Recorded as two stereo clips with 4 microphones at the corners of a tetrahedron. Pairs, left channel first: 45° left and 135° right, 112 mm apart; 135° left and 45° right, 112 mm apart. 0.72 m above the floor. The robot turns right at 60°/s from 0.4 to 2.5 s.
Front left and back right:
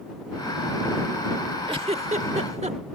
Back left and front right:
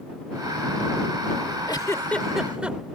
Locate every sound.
1.7 s a giggle: 175° right; by 2.8 s 125° right